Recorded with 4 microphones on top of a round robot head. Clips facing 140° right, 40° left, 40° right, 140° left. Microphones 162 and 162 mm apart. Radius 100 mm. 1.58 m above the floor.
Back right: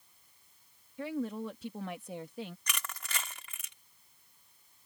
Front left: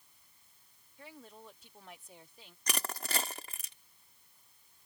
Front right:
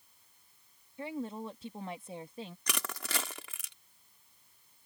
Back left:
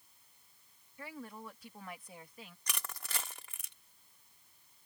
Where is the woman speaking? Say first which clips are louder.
Back right 17 dB, front right 9 dB; 110° right; by 2.6 s 105° right.